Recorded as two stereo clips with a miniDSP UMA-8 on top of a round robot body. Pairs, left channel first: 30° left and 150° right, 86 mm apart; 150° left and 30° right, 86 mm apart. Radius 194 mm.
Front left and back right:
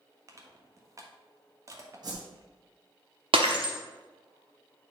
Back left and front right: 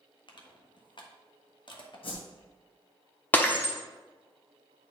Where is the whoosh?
170° left, 3 m.